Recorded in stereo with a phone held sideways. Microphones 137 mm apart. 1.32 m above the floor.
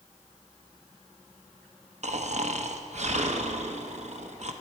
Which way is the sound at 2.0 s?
60° right (ahead or behind).